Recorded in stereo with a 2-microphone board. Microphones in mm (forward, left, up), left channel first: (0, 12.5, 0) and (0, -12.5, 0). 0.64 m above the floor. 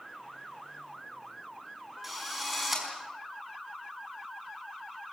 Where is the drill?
10° right (ahead or behind), 5 m.